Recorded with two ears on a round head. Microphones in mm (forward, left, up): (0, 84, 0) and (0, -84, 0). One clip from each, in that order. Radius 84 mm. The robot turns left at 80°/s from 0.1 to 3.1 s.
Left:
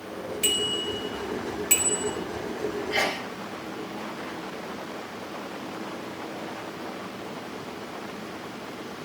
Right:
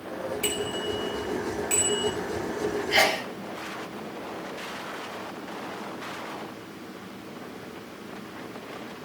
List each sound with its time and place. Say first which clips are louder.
0.4 s a bicycle bell: left 6 dB; 50° left (ahead or behind), 5 m; by 2.1 s 5° right (ahead or behind), 5 m
2.9 s a sneeze: right 5 dB; 30° right (ahead or behind), 0.6 m; by 3.3 s 20° right (ahead or behind), 0.6 m